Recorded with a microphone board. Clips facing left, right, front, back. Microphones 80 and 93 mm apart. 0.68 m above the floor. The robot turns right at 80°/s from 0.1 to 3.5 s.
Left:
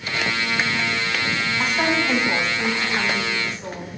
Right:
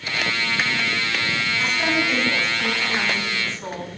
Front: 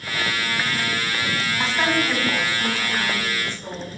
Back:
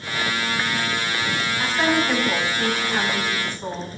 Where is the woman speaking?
55° left, 4.5 m; by 3.9 s 150° right, 4.5 m.